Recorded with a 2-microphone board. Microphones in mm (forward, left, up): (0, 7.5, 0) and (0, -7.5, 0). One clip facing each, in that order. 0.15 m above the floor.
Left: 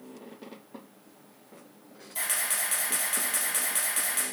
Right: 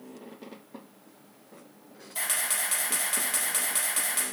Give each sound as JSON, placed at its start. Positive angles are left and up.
{"t": 2.1, "sound": "a camera shutter", "side_deg": -15, "distance_m": 3.5}